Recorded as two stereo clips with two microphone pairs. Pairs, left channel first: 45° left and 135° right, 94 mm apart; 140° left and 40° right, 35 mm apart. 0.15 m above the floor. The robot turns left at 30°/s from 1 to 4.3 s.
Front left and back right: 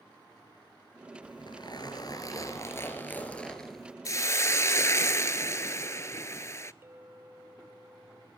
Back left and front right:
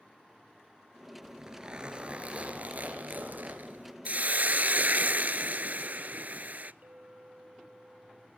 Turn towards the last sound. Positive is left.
turn(degrees=-75)